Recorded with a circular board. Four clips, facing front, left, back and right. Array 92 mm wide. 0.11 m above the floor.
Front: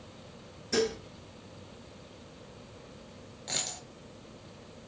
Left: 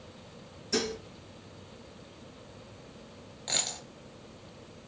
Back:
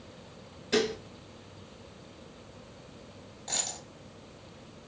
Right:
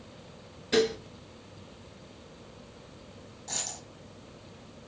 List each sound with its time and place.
0.7 s dishes clattering: 120° right, 1.0 m
3.5 s a dropped coin: 75° left, 0.9 m